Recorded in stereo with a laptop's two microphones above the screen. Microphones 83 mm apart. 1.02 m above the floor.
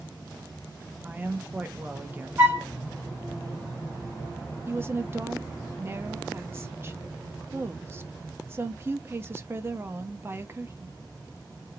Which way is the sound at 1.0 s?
25° right (ahead or behind).